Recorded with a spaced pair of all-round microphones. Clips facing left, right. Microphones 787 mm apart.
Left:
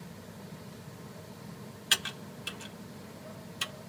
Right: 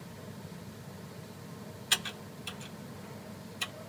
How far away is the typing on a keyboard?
About 0.8 m.